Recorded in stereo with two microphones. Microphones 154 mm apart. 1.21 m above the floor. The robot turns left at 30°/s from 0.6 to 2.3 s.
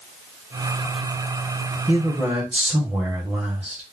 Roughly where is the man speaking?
Right.